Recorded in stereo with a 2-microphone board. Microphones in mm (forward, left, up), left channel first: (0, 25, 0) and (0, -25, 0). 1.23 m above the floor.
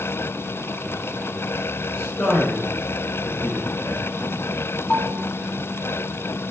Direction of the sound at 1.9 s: 50° left (ahead or behind).